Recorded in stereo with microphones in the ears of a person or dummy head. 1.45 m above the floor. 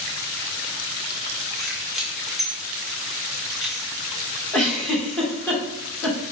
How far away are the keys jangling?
About 0.7 m.